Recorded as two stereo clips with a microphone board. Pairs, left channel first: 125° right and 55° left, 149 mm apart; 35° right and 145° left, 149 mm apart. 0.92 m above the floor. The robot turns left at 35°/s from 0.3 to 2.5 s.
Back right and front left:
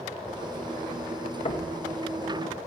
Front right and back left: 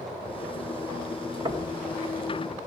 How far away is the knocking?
About 0.5 m.